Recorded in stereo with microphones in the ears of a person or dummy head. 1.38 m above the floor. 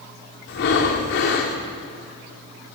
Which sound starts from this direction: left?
Breathing, at 0.5 s.